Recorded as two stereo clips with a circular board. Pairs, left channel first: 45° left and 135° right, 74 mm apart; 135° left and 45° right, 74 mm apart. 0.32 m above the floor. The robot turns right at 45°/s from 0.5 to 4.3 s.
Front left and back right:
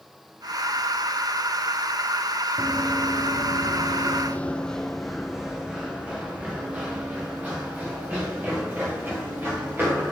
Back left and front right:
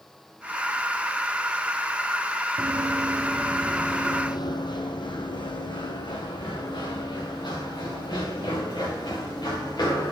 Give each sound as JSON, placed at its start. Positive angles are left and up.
{"t": 2.6, "sound": "running footsteps", "azimuth_deg": -35, "distance_m": 0.9}